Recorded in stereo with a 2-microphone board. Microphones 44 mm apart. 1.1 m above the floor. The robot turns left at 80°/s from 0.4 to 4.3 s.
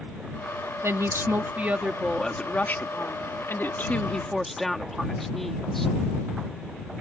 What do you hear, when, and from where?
0.8 s a woman speaking: 80° right; by 5.9 s 5° left